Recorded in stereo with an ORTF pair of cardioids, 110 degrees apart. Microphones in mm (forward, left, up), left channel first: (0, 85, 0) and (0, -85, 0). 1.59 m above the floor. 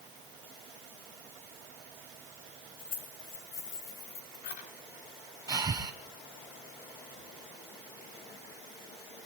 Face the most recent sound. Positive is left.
turn(degrees=-20)